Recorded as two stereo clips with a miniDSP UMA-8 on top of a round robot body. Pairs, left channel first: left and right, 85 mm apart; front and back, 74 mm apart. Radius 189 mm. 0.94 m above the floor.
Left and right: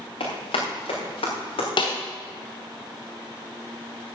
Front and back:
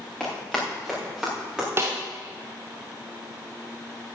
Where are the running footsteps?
85° left, 5.5 m; by 1.7 s 100° left, 5.5 m.